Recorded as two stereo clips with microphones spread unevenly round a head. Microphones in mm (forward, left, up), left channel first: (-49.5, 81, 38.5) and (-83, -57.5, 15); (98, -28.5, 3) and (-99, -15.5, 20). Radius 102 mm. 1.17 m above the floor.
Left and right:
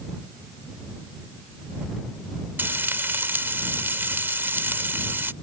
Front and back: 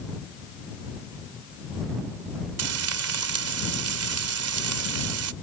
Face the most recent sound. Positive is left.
turn(degrees=180)